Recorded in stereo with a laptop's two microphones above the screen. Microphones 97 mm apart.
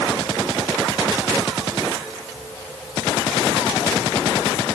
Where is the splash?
No splash in this recording.